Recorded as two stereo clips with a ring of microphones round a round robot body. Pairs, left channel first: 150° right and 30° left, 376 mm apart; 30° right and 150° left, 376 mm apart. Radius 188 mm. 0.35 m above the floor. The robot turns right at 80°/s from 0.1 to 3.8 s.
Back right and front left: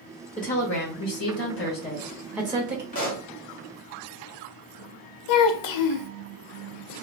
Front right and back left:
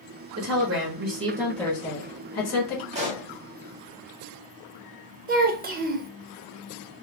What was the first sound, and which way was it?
A woman speaking, 150° left.